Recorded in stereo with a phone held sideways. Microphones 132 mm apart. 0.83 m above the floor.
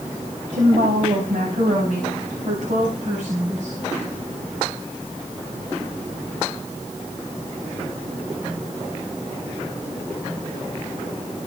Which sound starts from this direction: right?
A woman speaking, at 0.5 s.